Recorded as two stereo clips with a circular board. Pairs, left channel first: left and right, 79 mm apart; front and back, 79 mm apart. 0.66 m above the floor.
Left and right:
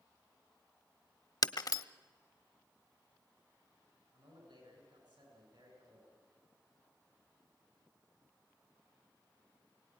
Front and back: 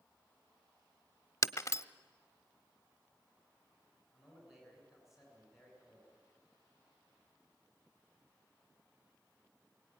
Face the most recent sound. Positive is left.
turn(degrees=-90)